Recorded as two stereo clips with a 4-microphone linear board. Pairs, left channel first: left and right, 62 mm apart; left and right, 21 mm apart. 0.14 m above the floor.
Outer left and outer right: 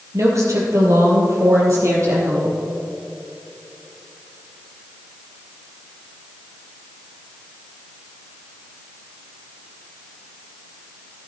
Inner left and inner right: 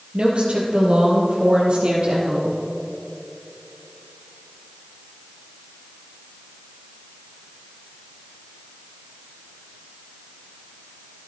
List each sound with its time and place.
0.1 s a woman speaking: 50° right (ahead or behind), 3 m